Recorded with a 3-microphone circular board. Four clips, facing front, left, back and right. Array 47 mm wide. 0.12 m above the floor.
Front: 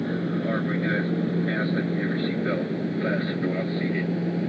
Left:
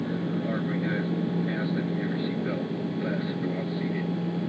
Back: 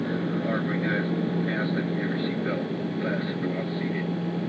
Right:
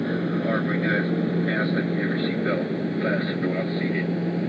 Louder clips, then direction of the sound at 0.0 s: Right 4 dB, front 1 dB; 85° right.